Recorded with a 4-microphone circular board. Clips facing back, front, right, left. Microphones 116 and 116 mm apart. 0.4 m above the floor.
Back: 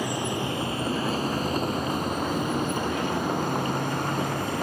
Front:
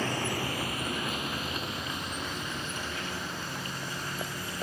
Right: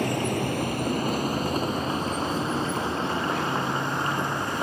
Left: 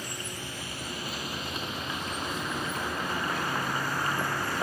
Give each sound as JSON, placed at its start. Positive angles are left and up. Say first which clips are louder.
{"t": 0.0, "sound": "a vehicle", "louder": "back 4 dB, right 14 dB", "azimuth_deg": -105}